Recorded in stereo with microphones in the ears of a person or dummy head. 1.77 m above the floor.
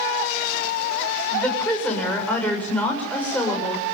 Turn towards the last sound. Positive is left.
turn(degrees=10)  # may be behind; listen again after turning